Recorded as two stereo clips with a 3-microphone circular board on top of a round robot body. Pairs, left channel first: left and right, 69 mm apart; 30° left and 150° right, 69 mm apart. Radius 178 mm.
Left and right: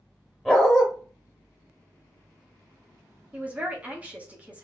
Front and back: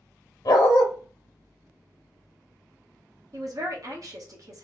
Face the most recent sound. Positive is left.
turn(degrees=-155)